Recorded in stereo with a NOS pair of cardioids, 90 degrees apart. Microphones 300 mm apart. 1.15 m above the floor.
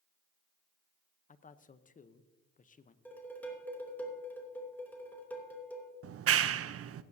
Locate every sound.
1.3 s a man speaking: 25° left, 0.8 m
3.0 s dishes clattering: 5° left, 3 m
6.0 s a clap: 50° right, 0.7 m